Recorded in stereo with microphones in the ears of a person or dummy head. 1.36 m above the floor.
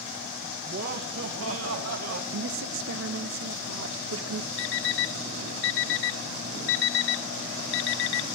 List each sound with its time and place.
0.7 s laughter: 50° right (ahead or behind), 1.8 m; by 2.2 s 80° right, 2 m
2.3 s a woman speaking: 65° right (ahead or behind), 1.2 m
4.6 s an alarm clock: 60° left (ahead or behind), 0.8 m